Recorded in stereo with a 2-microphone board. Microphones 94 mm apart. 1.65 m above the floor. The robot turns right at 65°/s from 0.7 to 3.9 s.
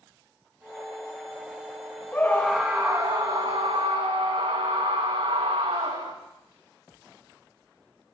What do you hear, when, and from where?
2.1 s a scream: 155° left, 3 m; by 6.1 s 90° right, 3 m